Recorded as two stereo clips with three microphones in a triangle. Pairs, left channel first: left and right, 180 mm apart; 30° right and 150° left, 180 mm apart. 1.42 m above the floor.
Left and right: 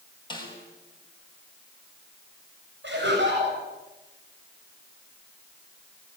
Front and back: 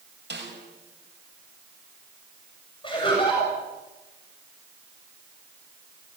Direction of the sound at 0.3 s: 155° left.